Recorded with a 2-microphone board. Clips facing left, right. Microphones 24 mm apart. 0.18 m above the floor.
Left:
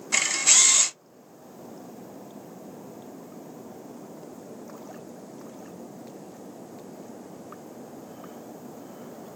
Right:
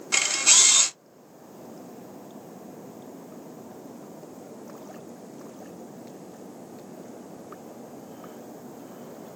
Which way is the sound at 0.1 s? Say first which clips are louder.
Right 1 dB; 30° right (ahead or behind).